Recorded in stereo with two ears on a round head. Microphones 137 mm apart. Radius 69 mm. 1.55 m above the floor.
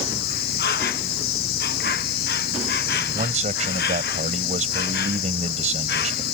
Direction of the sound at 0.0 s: 70° left (ahead or behind).